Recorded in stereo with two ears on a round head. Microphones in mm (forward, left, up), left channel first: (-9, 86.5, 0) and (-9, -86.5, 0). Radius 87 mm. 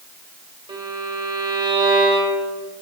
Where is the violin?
20° right (ahead or behind), 2.0 m.